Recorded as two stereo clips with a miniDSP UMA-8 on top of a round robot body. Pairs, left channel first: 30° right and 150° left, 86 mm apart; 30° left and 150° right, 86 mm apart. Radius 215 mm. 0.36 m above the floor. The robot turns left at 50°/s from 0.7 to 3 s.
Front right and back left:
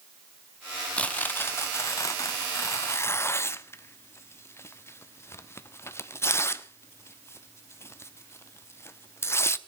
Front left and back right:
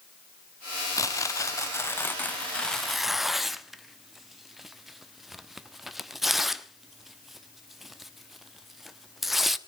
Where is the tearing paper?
40° left, 1.3 m; by 9.6 s 65° right, 1.3 m.